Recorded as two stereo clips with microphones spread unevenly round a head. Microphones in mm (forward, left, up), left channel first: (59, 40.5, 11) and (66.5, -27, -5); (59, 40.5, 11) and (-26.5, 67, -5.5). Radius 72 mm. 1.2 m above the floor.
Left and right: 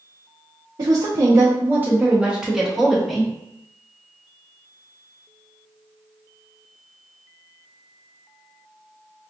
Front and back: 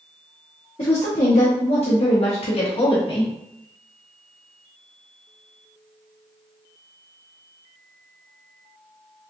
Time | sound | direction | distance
0.8 | a woman speaking | 70° right | 0.8 m